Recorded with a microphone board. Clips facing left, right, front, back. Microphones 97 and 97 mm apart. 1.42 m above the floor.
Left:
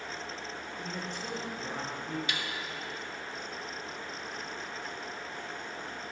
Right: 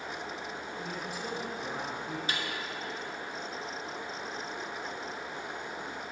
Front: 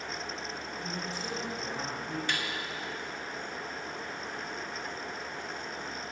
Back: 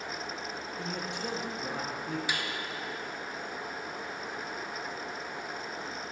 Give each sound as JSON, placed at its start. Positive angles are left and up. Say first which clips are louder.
{"t": 0.8, "sound": "a man speaking", "louder": "even, back 2 dB", "azimuth_deg": -175, "distance_m": 1.2}
{"t": 2.3, "sound": "a snare drum", "louder": "right 1 dB, front 2 dB", "azimuth_deg": -105, "distance_m": 0.7}